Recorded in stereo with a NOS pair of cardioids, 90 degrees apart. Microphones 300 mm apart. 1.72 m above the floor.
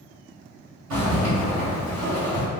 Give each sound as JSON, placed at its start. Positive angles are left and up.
{"t": 0.9, "sound": "a zipper", "azimuth_deg": -70, "distance_m": 1.8}